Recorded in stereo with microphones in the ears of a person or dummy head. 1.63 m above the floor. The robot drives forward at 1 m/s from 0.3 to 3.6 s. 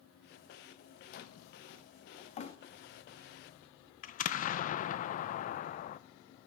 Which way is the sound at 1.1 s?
50° left (ahead or behind).